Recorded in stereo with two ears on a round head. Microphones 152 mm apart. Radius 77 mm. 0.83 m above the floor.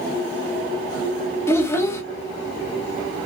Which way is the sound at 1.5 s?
15° left (ahead or behind).